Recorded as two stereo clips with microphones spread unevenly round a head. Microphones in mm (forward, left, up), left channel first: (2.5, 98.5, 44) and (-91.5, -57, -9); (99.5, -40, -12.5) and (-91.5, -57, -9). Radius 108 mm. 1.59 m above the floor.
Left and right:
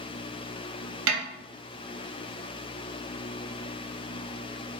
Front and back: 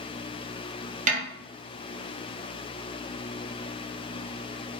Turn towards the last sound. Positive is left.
turn(degrees=-125)